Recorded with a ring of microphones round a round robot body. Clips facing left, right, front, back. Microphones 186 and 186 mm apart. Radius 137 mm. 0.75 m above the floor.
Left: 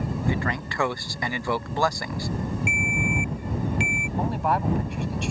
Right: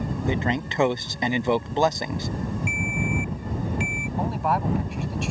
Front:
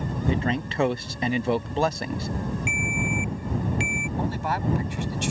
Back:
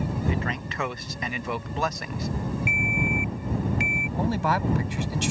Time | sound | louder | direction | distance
0.3 | a man speaking | right 5 dB, front 4 dB | 35° right | ?
2.7 | a ringtone | even, back 1 dB | 65° left | ?
4.2 | a man speaking | even, back 4 dB | straight behind | ?